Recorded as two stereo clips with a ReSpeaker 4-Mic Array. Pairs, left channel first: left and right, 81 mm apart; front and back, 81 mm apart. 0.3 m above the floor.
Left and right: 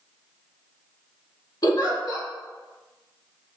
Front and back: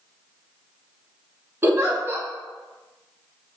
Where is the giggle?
120° left, 0.5 m.